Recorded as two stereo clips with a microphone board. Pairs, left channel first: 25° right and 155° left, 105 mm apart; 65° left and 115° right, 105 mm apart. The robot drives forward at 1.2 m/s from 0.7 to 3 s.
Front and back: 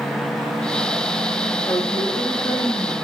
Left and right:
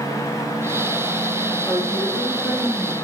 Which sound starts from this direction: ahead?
A woman speaking, at 1.7 s.